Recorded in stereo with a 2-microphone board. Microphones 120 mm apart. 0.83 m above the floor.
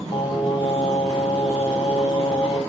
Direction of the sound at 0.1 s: 50° left (ahead or behind).